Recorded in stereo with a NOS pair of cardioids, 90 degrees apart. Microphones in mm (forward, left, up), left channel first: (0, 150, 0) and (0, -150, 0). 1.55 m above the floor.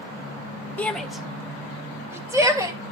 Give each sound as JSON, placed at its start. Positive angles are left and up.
{"t": 0.8, "sound": "a shout", "azimuth_deg": 5, "distance_m": 1.3}